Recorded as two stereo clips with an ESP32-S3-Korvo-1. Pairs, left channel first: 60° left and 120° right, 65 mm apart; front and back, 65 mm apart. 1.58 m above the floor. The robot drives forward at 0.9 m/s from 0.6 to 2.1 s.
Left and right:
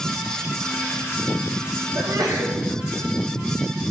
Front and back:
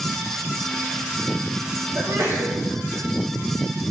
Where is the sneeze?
135° right, 1.5 m.